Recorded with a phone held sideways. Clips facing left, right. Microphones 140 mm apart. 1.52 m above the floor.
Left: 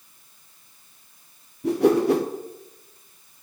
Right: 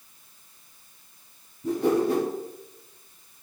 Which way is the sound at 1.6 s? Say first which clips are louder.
Left 4 dB; 80° left.